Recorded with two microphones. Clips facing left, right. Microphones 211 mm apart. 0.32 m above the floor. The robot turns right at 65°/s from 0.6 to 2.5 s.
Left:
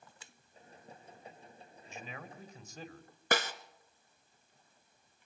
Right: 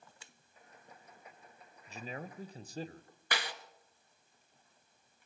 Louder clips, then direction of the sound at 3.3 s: Left 7 dB; 45° left (ahead or behind).